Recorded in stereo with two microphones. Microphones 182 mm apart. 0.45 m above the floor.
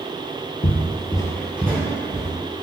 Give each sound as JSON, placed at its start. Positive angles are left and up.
{"t": 0.6, "sound": "footsteps", "side_deg": 55, "distance_m": 0.7}